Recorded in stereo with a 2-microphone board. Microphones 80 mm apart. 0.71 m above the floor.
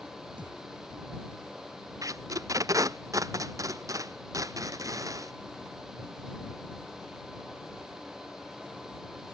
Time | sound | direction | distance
0.4 | a thud | 75° right (ahead or behind) | ?
2.0 | tape being pulled | 45° right (ahead or behind) | ?